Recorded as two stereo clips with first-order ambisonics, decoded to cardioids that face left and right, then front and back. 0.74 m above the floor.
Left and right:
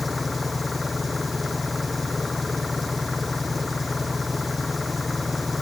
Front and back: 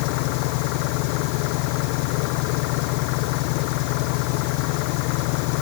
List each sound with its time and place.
0.0 s an engine running: 10° left